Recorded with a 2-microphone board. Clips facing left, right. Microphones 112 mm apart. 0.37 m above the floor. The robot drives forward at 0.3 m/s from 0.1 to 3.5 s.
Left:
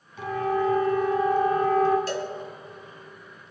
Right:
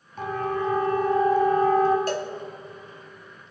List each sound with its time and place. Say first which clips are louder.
0.2 s a siren: left 2 dB; 50° right (ahead or behind), 4.5 m; by 2.0 s 40° right (ahead or behind), 4 m
2.1 s a cowbell: right 2 dB; 50° right (ahead or behind), 1.9 m